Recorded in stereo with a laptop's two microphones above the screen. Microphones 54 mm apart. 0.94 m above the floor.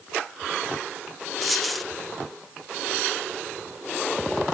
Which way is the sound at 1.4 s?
Centre (ahead or behind).